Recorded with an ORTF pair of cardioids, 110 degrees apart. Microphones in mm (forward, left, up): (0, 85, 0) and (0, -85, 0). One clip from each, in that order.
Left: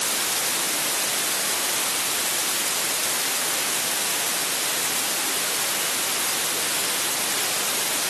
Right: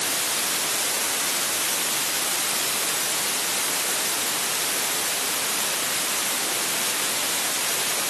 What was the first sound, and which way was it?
Only background noise.